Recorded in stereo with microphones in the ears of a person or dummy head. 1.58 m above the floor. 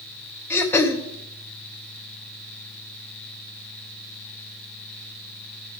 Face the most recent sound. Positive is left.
turn(degrees=10)  # may be behind; listen again after turning